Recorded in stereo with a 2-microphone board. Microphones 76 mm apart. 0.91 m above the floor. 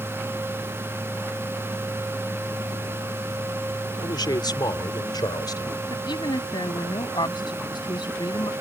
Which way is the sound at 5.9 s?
85° left.